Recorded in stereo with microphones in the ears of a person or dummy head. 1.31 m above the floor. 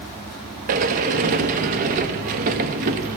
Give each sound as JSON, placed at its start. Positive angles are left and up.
{"t": 0.7, "sound": "a sliding door", "side_deg": -45, "distance_m": 0.9}